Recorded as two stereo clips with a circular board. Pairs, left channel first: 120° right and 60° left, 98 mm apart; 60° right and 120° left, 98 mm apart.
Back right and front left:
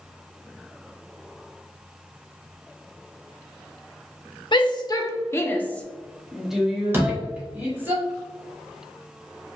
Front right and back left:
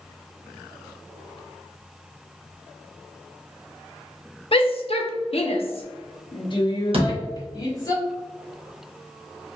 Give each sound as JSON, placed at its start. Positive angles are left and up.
{"t": 4.5, "sound": "a shout", "azimuth_deg": -85, "distance_m": 0.9}
{"t": 6.9, "sound": "a door slam", "azimuth_deg": 125, "distance_m": 1.3}